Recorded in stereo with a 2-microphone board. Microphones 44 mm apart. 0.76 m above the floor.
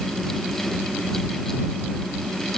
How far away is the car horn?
No car horn in this recording.